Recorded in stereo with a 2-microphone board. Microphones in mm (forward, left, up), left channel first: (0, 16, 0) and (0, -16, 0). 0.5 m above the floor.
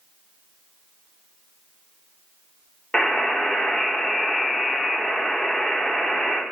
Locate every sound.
2.9 s a buzzer: 35° left (ahead or behind), 1.0 m